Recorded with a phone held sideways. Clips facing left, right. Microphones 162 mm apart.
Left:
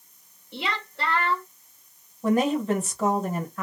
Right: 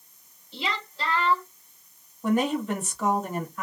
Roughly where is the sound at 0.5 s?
Left.